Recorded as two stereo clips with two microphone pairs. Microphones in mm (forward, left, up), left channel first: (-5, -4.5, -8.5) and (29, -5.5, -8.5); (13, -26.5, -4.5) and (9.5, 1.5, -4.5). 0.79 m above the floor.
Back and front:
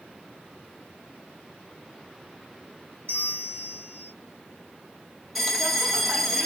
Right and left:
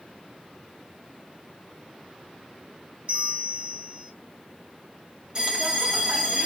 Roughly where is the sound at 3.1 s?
Behind left.